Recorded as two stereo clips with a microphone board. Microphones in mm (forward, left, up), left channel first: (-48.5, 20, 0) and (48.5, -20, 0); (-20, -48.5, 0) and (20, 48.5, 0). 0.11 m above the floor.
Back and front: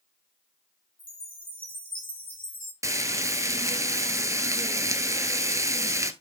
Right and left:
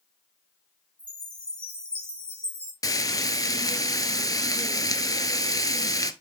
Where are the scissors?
I don't hear scissors.